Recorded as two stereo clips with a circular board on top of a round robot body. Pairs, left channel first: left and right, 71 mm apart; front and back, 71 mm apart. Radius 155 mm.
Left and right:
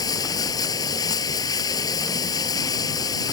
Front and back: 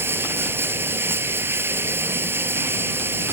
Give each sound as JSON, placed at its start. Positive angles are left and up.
{"t": 0.0, "sound": "running water", "azimuth_deg": 120}